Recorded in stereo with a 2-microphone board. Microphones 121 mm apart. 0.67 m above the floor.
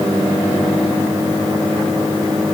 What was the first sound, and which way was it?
Only background noise.